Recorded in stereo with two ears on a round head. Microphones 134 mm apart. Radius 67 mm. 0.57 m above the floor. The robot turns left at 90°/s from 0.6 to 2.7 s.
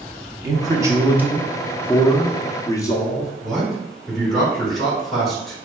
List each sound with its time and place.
0.4 s a man speaking: 25° right (ahead or behind), 0.7 m; by 3.3 s 20° left (ahead or behind), 0.7 m
3.4 s a man speaking: centre (ahead or behind), 1.9 m